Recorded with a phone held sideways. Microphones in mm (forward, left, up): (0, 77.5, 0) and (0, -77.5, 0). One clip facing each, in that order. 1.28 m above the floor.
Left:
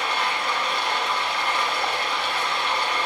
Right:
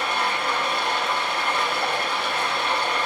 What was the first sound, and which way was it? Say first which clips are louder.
Running water: right 1 dB; 45° right (ahead or behind).